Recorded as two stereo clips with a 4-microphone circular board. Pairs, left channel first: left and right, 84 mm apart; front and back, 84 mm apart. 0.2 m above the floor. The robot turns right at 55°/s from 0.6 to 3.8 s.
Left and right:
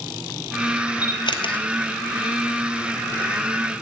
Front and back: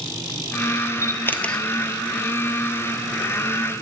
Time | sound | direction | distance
1.0 | a camera shutter | 50° left | 1.3 m